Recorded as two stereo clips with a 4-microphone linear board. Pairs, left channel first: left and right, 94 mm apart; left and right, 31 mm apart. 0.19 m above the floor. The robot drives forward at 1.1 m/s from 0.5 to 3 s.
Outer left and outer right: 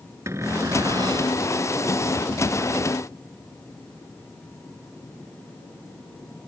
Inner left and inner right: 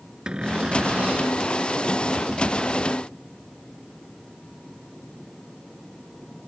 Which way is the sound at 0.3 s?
30° right (ahead or behind).